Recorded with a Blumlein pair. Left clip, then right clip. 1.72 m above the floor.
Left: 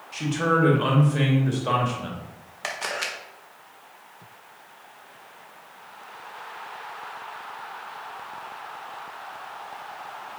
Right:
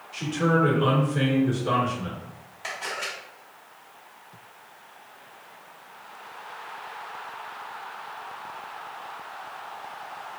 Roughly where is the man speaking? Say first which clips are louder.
Left 1 dB; ahead left.